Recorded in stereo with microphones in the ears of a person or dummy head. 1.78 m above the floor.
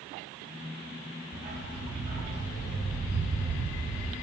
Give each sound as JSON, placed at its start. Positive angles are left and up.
{"t": 1.3, "sound": "a dog barking", "side_deg": -45, "distance_m": 6.5}